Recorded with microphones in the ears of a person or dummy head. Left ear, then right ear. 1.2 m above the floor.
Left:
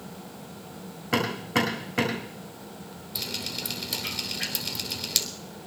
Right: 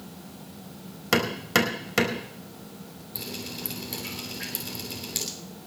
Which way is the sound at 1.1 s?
75° right (ahead or behind).